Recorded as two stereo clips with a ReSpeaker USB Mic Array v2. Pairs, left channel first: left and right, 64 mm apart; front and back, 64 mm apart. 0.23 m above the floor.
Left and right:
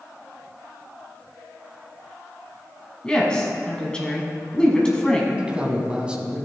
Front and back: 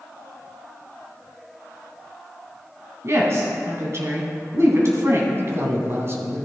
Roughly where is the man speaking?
Behind right.